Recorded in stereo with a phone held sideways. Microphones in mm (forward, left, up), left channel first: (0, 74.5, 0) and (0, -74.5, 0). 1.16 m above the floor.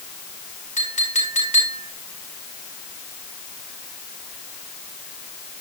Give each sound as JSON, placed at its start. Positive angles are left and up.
{"t": 0.8, "sound": "a clink", "side_deg": 55, "distance_m": 5.5}